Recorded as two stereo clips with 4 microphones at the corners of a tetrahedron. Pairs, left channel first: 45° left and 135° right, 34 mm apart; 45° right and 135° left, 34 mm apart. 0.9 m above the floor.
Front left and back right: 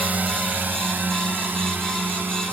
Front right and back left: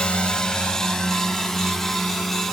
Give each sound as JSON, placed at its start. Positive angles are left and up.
{"t": 0.0, "sound": "a drone", "azimuth_deg": -100}